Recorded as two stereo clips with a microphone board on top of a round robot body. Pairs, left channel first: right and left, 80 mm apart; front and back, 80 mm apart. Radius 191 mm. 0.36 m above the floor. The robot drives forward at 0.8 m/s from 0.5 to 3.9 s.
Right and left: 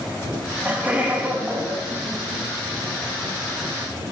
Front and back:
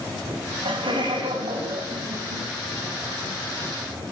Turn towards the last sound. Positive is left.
turn(degrees=175)